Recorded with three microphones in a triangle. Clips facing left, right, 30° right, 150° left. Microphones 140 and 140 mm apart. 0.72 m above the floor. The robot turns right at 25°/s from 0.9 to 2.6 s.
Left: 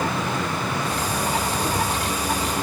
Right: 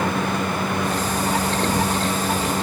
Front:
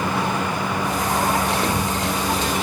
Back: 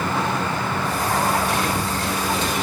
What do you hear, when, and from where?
1.6 s a thud: 60° right, 5 m; by 2.0 s 50° right, 5 m